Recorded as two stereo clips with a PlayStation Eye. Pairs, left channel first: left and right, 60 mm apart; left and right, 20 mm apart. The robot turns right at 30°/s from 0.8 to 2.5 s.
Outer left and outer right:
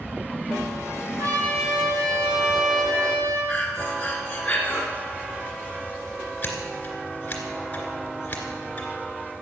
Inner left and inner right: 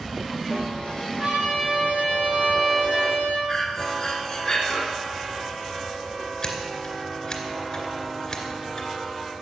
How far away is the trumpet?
About 4.5 m.